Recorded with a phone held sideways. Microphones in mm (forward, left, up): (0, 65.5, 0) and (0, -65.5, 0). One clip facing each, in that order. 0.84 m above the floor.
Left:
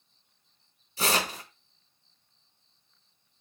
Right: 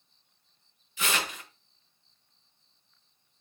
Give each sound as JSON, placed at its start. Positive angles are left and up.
{"t": 1.0, "sound": "tearing paper", "side_deg": 35, "distance_m": 0.5}